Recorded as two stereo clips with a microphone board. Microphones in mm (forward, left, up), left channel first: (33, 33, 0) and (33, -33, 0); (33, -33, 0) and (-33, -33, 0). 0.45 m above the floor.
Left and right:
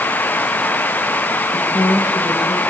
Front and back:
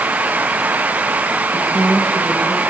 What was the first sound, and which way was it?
A woman speaking, 75° left.